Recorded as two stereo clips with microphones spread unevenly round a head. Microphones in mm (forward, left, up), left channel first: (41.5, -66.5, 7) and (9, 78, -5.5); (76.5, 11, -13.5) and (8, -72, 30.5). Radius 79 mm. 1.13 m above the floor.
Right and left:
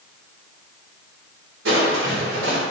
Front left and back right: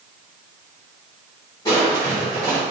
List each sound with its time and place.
1.6 s crushing: 120° left, 3 m